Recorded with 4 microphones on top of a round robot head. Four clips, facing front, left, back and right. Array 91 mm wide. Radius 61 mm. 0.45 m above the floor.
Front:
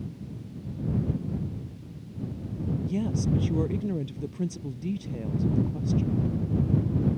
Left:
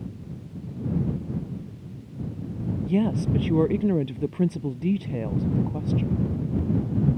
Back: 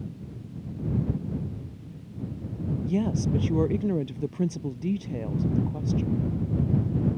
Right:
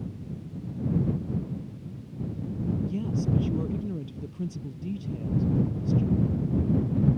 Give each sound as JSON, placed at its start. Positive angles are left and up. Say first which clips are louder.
{"t": 2.8, "sound": "a woman speaking", "louder": "left 5 dB, back 3 dB", "azimuth_deg": 110}